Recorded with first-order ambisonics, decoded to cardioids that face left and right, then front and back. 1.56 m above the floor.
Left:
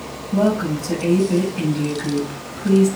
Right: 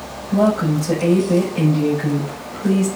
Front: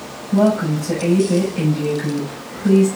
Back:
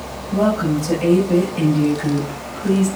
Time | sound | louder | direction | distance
0.3 | a woman speaking | right 2 dB, front 1 dB | 105° right | 7.5 m